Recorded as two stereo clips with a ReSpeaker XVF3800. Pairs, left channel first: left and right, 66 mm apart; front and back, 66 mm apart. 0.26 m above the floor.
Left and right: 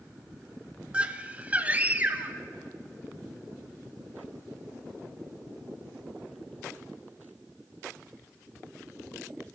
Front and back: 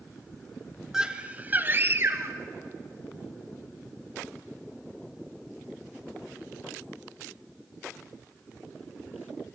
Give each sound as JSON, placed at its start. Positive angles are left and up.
{"t": 0.9, "sound": "a scream", "azimuth_deg": -120, "distance_m": 1.0}